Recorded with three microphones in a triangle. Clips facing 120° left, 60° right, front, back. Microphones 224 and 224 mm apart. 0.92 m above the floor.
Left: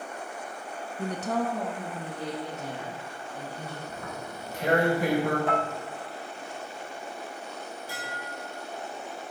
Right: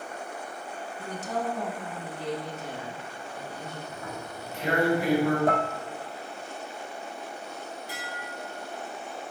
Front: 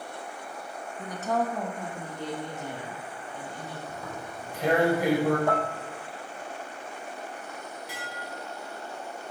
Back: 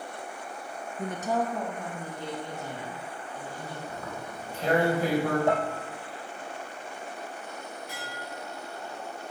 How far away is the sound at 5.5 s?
About 0.7 m.